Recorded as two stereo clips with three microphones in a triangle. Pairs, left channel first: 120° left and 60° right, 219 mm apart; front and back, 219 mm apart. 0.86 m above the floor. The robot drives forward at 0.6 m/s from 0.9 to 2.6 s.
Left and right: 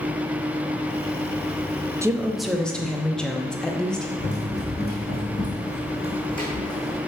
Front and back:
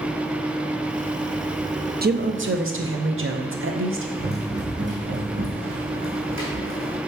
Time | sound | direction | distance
2.0 | a woman speaking | 135° right | 0.5 m
4.2 | running footsteps | 145° left | 1.8 m